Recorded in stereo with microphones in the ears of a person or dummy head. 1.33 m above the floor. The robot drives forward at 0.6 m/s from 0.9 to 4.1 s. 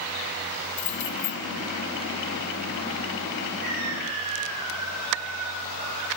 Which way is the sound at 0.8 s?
45° left (ahead or behind).